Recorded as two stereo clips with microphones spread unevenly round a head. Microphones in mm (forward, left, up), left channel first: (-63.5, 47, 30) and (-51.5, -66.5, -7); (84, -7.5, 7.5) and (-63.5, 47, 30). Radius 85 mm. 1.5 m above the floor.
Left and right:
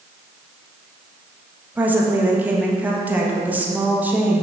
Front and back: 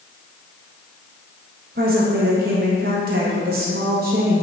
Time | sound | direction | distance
1.8 | a woman speaking | 165° right | 1.5 m